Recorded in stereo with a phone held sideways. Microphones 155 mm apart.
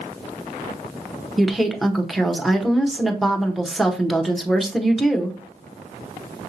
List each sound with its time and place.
1.4 s a woman speaking: centre (ahead or behind), 0.8 m